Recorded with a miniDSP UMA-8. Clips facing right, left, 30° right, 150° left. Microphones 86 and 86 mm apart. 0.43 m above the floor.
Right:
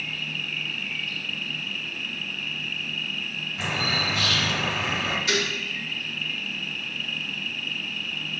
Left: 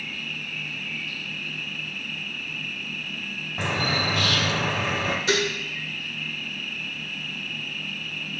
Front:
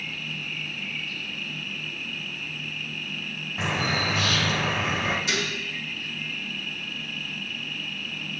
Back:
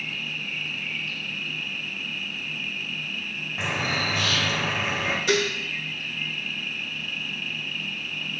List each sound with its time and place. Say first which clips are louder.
0.0 s an insect: right 1 dB, back 1 dB; 80° right, 1.4 m
3.6 s a bird: left 2 dB, front 1 dB; 60° left, 1.0 m
5.3 s dishes clattering: left 4 dB, back 6 dB; 135° left, 0.9 m